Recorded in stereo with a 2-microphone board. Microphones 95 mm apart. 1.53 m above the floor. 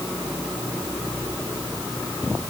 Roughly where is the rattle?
No rattle in this recording.